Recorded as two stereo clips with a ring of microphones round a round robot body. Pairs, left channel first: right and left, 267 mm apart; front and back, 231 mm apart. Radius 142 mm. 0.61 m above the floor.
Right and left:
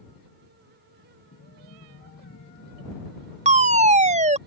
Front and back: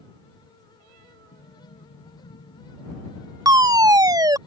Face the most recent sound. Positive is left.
turn(degrees=120)